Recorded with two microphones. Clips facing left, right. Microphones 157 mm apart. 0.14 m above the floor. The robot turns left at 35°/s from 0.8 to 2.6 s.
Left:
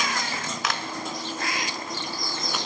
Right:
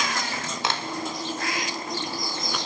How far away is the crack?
About 1.3 m.